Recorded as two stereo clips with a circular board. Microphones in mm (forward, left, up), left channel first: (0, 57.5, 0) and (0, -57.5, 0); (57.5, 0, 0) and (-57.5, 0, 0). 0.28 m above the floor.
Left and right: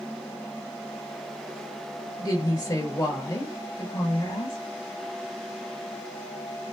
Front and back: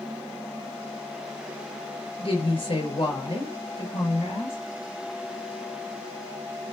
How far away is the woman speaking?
About 5 m.